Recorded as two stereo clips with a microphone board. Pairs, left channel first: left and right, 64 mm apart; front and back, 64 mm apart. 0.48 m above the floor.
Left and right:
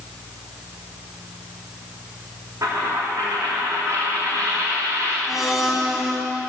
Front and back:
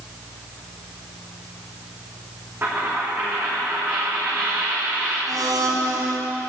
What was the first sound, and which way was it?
A dropped coin, 120° right.